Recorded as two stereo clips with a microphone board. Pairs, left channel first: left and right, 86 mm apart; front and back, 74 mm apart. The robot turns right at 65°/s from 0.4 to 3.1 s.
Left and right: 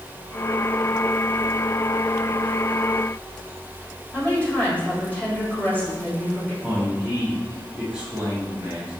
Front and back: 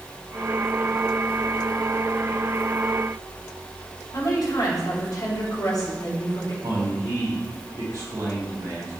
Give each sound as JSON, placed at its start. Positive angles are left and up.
{"t": 4.1, "sound": "a woman speaking", "azimuth_deg": 20, "distance_m": 3.0}
{"t": 6.6, "sound": "a man speaking", "azimuth_deg": -165, "distance_m": 2.0}